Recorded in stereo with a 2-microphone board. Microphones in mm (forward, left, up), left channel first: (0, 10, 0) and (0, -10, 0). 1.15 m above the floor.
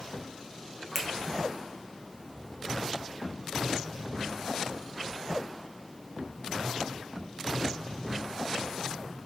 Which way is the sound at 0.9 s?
15° left (ahead or behind).